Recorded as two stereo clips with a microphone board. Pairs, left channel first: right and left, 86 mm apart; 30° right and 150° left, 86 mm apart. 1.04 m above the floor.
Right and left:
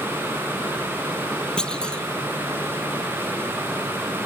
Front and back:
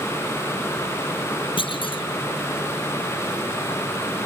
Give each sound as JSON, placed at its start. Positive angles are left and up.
{"t": 1.6, "sound": "a clunk", "azimuth_deg": -10}